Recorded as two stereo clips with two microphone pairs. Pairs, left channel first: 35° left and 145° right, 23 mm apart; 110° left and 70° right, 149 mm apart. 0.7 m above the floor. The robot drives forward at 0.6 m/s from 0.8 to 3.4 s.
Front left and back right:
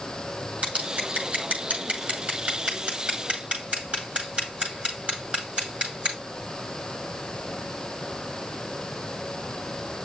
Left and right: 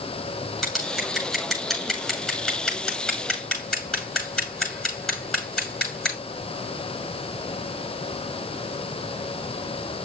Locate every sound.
0.6 s scissors: 160° right, 7 m